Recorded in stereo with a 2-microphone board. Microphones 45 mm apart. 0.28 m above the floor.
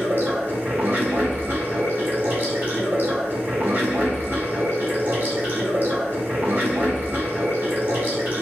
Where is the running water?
45° right (ahead or behind), 1.6 m.